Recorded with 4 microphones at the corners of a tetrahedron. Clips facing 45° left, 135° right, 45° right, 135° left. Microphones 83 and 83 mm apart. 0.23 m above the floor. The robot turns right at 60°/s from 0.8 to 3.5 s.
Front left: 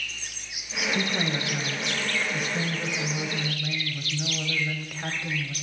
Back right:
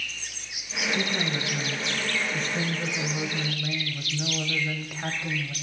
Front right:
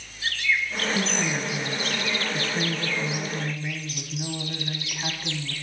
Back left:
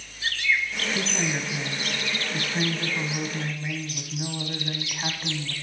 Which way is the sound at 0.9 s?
15° left.